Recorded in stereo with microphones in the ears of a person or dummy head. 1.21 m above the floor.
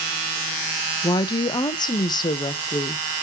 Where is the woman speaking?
20° left (ahead or behind), 0.5 m.